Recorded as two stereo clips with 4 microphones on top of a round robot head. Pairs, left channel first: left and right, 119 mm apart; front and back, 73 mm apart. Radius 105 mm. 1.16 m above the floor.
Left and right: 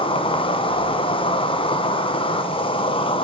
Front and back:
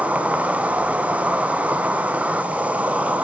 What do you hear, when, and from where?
0.0 s an insect: 115° left, 2 m